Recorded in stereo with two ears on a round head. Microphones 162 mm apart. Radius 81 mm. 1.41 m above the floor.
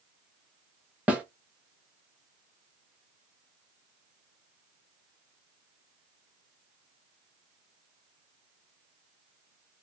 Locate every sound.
1.1 s a snare drum: 5° right (ahead or behind), 0.9 m